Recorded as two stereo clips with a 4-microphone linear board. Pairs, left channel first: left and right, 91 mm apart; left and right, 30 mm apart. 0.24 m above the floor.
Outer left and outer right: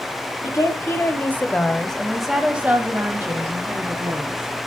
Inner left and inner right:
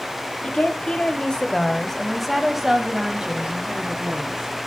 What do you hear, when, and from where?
0.4 s a woman speaking: 40° left (ahead or behind), 1.3 m; by 4.5 s 50° right (ahead or behind), 1.7 m